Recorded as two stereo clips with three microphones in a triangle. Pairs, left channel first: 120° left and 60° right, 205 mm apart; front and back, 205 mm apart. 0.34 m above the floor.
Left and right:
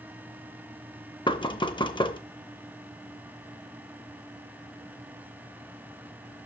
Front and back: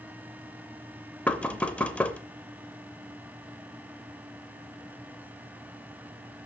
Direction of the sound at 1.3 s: 75° left.